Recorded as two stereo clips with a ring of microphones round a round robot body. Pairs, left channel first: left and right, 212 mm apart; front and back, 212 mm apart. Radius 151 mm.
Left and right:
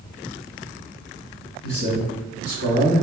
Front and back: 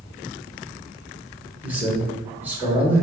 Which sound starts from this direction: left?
A man speaking, at 1.6 s.